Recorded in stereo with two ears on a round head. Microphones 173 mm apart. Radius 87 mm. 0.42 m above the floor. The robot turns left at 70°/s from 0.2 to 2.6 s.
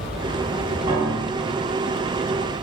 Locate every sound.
0.9 s a piano: 20° right (ahead or behind), 1.3 m; by 1.7 s 30° left (ahead or behind), 1.3 m